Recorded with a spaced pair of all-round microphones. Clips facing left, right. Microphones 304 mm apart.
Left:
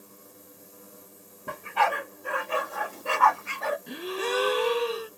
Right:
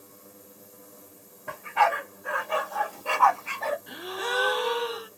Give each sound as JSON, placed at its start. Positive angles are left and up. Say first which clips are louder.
{"t": 1.5, "sound": "a dog barking", "louder": "right 1 dB", "side_deg": 45, "distance_m": 1.5}
{"t": 3.9, "sound": "a gasp", "louder": "left 4 dB", "side_deg": 35, "distance_m": 0.6}